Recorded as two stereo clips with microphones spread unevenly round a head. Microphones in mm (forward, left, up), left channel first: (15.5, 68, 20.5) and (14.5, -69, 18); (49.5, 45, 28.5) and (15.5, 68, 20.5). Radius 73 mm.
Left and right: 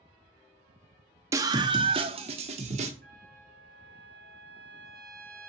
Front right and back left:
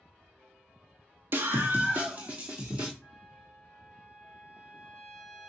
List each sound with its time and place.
1.3 s a scream: 160° right, 0.9 m; by 2.9 s 140° right, 2 m
3.0 s a trumpet: 120° right, 5 m